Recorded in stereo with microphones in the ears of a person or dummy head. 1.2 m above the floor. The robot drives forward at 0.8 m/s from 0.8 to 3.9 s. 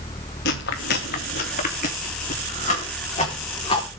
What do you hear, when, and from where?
0.5 s chewing: 55° left (ahead or behind), 2 m; by 3.9 s 25° left (ahead or behind), 4 m